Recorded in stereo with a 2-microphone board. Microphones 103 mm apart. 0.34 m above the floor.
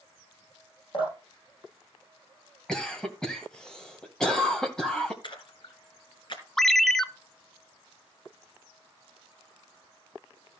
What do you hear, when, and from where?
0.9 s dripping: 50° left (ahead or behind), 6.5 m
2.7 s a cough: 5° left (ahead or behind), 2.0 m
5.2 s a splash: 50° left (ahead or behind), 3 m
6.6 s a ringtone: 5° left (ahead or behind), 0.7 m